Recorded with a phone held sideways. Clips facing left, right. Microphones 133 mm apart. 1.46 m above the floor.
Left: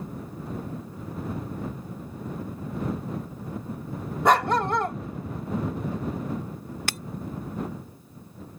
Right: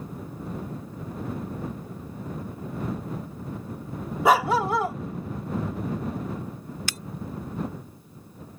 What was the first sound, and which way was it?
A dog barking, 5° right (ahead or behind).